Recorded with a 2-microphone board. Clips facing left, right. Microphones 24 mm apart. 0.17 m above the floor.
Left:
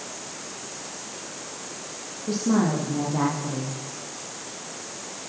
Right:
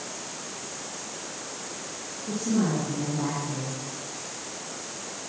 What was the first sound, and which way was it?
A woman speaking, 75° left (ahead or behind).